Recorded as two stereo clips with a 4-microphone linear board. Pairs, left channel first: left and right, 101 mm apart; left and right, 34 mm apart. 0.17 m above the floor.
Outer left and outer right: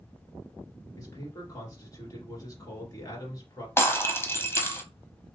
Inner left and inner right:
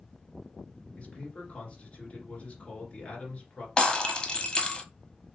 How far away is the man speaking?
About 2.5 m.